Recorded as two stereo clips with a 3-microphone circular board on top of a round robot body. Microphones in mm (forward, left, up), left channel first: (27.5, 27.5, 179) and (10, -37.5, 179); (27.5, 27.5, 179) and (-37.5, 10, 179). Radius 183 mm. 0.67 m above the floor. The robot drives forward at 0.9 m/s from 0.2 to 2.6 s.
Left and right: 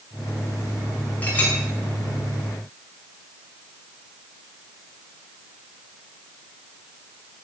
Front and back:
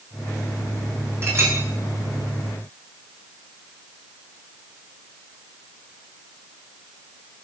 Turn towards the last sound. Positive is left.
turn(degrees=150)